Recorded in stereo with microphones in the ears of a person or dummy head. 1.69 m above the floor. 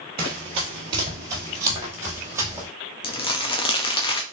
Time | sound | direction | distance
0.2 | running footsteps | 30° right (ahead or behind) | 1.9 m
3.0 | crumpling | 30° left (ahead or behind) | 0.6 m